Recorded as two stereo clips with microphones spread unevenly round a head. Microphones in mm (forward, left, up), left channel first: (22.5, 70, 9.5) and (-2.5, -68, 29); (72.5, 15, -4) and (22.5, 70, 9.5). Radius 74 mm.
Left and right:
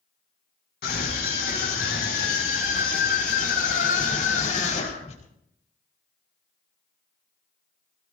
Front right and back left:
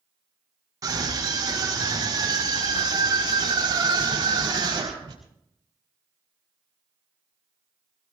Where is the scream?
95° left, 6 m; by 5.2 s 125° left, 4.5 m.